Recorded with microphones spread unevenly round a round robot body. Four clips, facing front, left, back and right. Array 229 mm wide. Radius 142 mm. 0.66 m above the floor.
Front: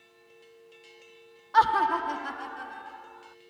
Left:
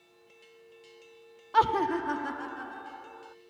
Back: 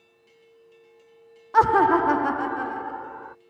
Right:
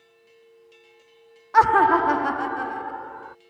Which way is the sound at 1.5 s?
175° right.